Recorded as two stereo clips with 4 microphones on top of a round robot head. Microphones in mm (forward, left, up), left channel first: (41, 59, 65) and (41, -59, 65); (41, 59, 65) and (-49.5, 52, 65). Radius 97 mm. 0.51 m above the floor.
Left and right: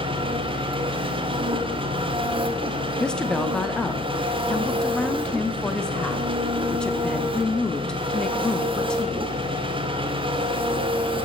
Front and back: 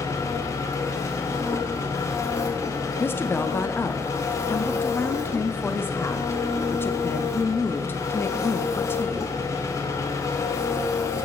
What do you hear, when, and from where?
0.0 s an engine running: 50° right, 1.1 m
3.0 s a woman speaking: 20° left, 0.8 m